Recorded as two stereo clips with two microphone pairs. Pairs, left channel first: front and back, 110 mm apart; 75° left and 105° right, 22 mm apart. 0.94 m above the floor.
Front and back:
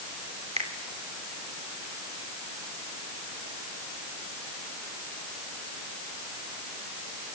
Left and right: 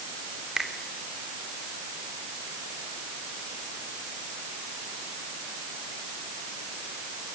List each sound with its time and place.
0.6 s a finger snap: 170° right, 3 m